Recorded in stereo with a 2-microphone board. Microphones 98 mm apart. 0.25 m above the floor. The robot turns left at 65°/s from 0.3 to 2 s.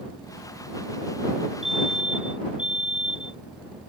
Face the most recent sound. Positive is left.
turn(degrees=55)  # may be behind; listen again after turning